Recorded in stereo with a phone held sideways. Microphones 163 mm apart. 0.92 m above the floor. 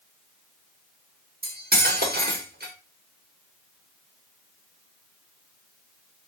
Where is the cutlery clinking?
70° right (ahead or behind), 1.2 m.